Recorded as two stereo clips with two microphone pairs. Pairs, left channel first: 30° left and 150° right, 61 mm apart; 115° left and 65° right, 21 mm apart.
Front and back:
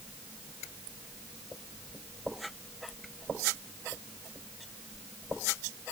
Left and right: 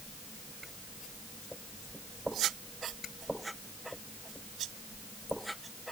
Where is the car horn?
No car horn in this recording.